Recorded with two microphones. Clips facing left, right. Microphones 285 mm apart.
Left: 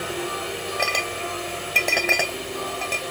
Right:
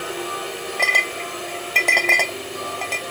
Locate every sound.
0.8 s a clink: 10° left (ahead or behind)